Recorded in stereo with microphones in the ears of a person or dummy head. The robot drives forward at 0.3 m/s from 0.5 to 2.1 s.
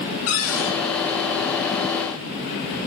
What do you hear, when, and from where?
0.3 s a cupboard door: 85° left, 5.5 m